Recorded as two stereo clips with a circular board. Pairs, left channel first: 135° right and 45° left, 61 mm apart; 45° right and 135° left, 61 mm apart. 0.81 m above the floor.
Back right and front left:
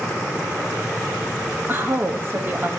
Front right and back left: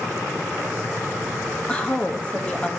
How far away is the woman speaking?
About 1.1 m.